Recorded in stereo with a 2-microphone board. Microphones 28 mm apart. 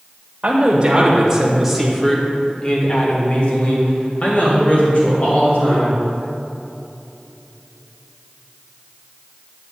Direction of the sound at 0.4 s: 40° right (ahead or behind).